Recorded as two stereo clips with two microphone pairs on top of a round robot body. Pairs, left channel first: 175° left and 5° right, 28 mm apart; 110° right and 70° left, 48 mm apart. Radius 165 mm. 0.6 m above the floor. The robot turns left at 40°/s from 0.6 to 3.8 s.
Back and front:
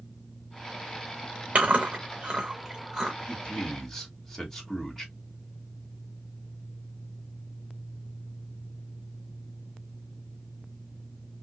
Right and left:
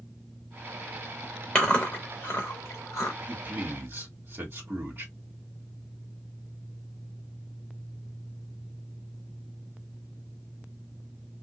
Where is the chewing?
40° right, 0.6 m; by 3.1 s 105° right, 0.6 m.